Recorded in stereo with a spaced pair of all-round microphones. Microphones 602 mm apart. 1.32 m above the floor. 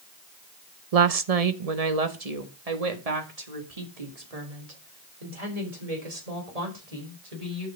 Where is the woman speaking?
75° right (ahead or behind), 0.8 m; by 7.7 s 85° right, 5 m.